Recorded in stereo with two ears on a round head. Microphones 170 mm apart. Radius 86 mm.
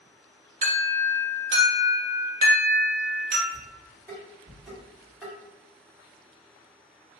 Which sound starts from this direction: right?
An alarm, at 0.6 s.